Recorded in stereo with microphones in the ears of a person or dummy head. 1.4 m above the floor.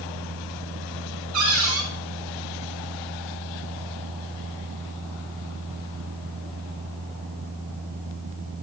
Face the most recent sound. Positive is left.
turn(degrees=-80)